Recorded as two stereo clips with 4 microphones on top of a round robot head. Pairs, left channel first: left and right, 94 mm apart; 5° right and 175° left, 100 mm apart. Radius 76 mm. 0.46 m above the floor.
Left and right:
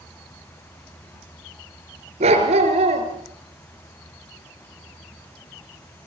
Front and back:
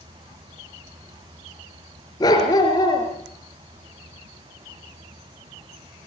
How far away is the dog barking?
About 4.5 m.